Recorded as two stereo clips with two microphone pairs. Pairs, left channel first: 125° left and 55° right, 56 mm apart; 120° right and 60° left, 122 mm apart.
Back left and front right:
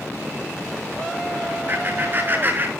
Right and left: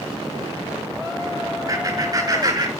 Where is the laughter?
Straight ahead, 7 m; by 2.7 s 5° left, 6.5 m.